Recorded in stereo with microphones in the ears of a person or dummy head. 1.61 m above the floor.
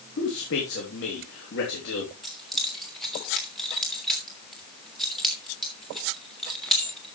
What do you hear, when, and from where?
0.2 s a man speaking: 55° left (ahead or behind), 3 m
2.2 s keys jangling: 5° left (ahead or behind), 3 m